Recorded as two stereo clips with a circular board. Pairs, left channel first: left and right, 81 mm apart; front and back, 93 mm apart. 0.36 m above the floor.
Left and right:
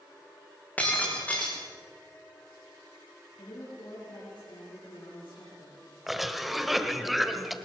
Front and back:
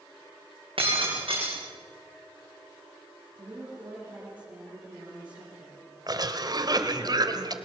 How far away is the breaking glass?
About 6.5 m.